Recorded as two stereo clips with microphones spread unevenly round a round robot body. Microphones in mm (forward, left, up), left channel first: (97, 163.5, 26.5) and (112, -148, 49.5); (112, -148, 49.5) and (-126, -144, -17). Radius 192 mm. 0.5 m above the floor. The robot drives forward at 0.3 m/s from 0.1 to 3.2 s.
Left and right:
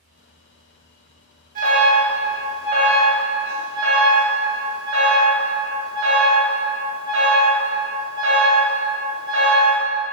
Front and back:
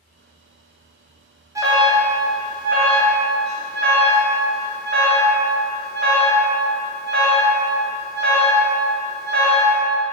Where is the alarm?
140° right, 0.6 m; by 9.8 s 165° right, 1.0 m.